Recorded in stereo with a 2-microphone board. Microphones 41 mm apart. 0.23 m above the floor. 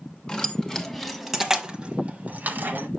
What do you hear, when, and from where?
0.3 s keys jangling: 15° left (ahead or behind), 1.5 m; by 2.9 s 50° right (ahead or behind), 1.3 m